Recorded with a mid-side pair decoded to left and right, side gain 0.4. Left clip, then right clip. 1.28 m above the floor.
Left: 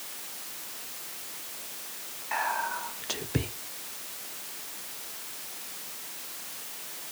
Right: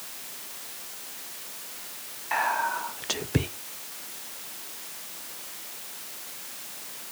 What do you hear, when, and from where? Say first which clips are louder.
2.3 s whispering: right 4 dB; 30° right, 0.5 m